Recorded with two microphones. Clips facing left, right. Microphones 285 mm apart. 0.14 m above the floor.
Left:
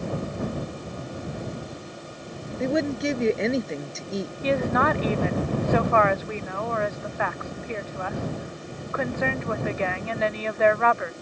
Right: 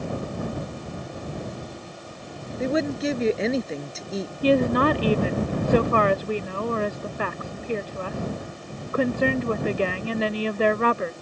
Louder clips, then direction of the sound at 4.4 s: Right 5 dB; 40° right (ahead or behind).